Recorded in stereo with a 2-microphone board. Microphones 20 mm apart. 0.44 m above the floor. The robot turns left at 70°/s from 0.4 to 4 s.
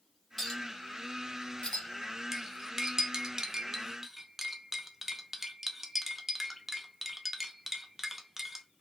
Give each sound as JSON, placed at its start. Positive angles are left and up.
{"t": 0.4, "sound": "a clink", "side_deg": 15, "distance_m": 1.3}
{"t": 2.3, "sound": "cutlery clinking", "side_deg": -15, "distance_m": 0.6}